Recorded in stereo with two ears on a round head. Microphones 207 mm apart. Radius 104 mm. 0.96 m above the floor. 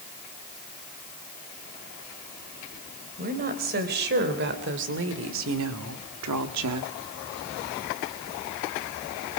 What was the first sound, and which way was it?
A woman speaking, 40° right (ahead or behind).